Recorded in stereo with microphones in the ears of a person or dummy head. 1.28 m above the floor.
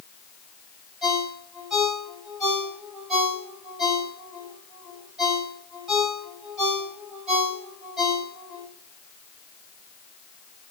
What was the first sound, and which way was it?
A ringtone, centre (ahead or behind).